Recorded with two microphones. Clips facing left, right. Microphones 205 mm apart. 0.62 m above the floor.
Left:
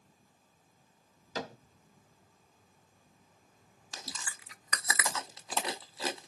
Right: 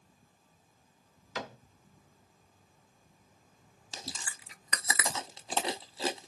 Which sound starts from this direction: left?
A cupboard door, at 1.4 s.